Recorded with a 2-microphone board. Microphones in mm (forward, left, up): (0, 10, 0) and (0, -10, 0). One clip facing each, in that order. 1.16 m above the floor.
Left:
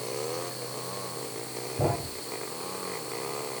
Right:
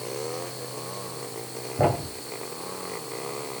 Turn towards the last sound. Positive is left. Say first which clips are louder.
# right 5 dB
turn(degrees=-70)  # may be behind; listen again after turning